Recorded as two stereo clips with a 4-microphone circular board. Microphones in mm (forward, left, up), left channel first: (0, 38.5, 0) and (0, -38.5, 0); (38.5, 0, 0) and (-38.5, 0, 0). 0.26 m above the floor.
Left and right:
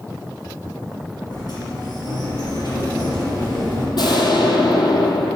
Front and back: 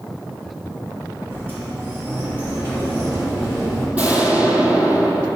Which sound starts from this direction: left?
An explosion, at 4.0 s.